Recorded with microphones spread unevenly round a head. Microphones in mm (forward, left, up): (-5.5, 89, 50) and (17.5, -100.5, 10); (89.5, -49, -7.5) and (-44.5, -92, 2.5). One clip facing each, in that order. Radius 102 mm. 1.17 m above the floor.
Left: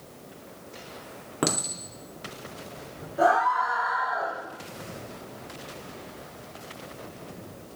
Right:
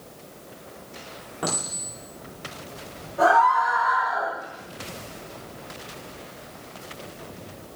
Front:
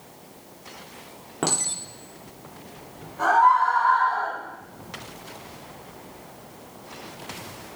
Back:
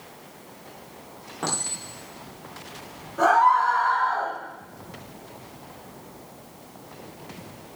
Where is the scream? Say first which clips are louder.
Right 3 dB, even; straight behind, 6 m.